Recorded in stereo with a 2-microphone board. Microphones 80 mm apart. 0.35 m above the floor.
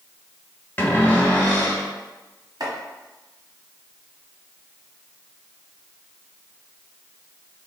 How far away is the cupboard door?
About 1.1 m.